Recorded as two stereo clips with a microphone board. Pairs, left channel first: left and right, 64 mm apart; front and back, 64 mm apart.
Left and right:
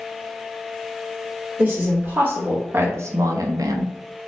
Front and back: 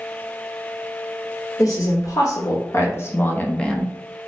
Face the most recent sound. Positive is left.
turn(degrees=-90)